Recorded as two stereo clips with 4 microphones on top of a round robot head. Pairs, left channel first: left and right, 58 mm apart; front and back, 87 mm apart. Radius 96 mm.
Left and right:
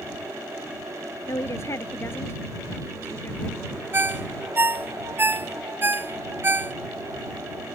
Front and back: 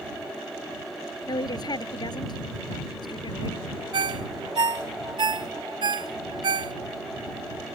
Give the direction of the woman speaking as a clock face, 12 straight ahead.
11 o'clock.